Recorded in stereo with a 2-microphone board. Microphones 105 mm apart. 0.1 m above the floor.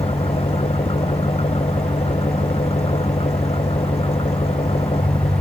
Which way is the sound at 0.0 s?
75° left (ahead or behind).